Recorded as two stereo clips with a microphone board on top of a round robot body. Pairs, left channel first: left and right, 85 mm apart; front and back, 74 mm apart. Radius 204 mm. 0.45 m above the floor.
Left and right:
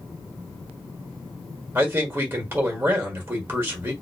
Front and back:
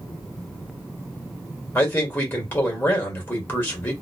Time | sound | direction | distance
1.8 | a man speaking | 50° right | 1.5 m